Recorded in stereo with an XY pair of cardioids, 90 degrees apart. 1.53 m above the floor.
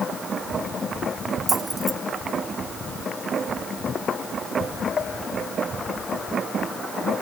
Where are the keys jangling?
15° right.